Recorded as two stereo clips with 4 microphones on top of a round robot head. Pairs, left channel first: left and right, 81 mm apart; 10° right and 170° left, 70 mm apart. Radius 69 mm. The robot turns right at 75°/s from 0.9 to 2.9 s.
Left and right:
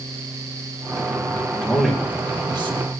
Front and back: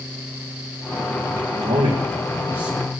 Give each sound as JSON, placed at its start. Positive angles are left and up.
{"t": 1.6, "sound": "a man speaking", "azimuth_deg": 165, "distance_m": 1.7}